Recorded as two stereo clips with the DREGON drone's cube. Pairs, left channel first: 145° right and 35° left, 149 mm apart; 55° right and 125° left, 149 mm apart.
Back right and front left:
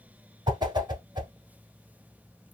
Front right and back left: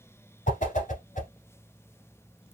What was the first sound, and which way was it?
A whoosh, 25° right.